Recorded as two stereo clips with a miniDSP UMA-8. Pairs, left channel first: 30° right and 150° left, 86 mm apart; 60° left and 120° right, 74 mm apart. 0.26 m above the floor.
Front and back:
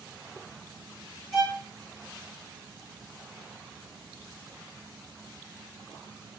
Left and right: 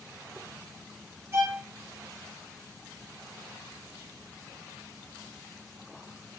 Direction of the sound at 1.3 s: 125° right.